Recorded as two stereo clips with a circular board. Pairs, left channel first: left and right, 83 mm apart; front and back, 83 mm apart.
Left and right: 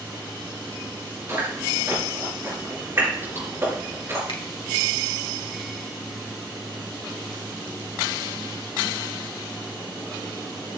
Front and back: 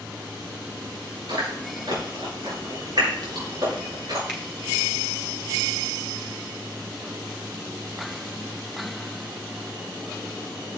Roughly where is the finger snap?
Left.